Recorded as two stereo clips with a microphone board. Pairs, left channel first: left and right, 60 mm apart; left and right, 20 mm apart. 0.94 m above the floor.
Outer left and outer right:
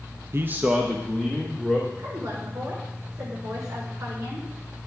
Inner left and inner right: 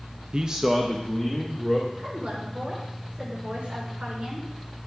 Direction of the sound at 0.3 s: 45° right (ahead or behind).